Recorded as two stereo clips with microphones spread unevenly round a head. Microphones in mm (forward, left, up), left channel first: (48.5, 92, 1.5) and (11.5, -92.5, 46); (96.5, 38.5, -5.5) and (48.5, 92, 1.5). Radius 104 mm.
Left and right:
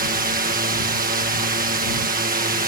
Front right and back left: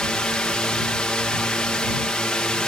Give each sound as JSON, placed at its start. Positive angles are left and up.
{"t": 0.0, "sound": "a drone", "azimuth_deg": -120}